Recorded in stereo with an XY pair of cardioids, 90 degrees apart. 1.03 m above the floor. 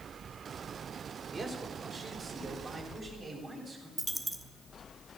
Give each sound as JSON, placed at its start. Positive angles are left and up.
{"t": 1.3, "sound": "a man speaking", "azimuth_deg": -50, "distance_m": 4.0}
{"t": 4.0, "sound": "a dropped coin", "azimuth_deg": -15, "distance_m": 1.0}